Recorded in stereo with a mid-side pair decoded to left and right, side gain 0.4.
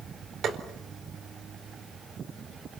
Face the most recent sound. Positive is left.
turn(degrees=-70)